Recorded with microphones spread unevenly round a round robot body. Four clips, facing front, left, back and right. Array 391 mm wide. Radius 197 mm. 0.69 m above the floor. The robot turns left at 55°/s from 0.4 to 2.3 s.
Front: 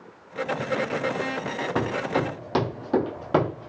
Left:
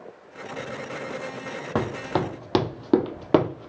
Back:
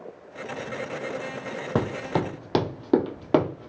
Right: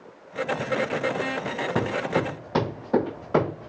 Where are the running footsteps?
150° left, 2.0 m; by 3.7 s 90° left, 1.4 m.